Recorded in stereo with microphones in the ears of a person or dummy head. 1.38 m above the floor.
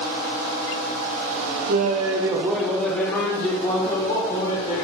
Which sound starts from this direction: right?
Laughter, at 1.7 s.